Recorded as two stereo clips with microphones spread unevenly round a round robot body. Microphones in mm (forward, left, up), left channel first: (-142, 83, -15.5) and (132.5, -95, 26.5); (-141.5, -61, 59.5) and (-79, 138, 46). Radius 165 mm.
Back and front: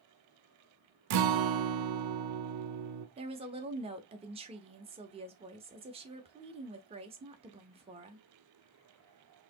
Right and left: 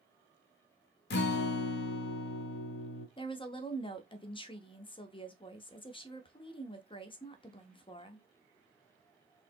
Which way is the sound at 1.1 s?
70° right.